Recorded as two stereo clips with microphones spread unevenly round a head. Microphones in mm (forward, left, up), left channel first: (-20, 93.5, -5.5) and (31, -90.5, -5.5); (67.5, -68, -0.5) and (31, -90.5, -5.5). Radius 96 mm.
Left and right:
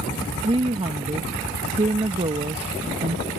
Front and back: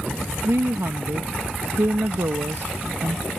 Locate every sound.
0.4 s a woman speaking: 140° right